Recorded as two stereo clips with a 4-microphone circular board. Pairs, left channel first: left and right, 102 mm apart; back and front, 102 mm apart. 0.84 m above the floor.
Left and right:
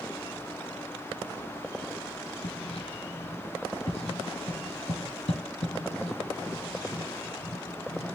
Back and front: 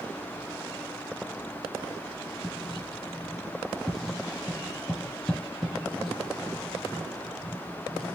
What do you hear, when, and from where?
2.4 s writing: 90° left, 3 m